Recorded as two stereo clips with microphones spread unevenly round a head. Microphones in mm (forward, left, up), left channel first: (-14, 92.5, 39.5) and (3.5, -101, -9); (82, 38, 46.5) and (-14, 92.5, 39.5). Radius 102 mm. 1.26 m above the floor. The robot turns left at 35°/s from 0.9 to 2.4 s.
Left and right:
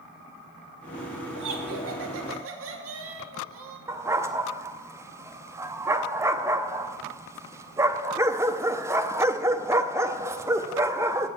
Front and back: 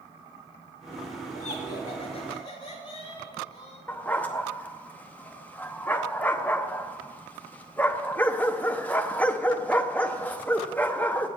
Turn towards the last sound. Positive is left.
turn(degrees=10)